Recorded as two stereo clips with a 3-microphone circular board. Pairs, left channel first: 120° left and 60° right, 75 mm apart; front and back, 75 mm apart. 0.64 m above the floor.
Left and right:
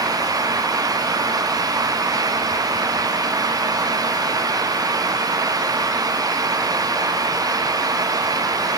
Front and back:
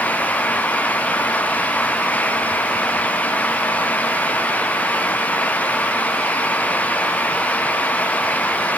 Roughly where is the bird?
No bird in this recording.